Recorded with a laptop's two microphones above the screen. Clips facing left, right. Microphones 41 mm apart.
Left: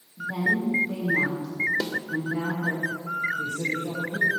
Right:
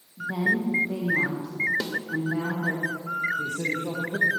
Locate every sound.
0.2 s a woman speaking: 10° right (ahead or behind), 1.1 m
1.8 s a snare drum: centre (ahead or behind), 1.1 m
3.4 s a man speaking: 55° right (ahead or behind), 1.3 m